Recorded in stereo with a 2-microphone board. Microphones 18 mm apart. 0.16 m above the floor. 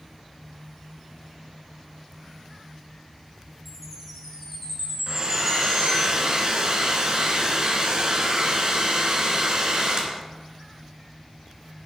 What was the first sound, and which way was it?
A chime, centre (ahead or behind).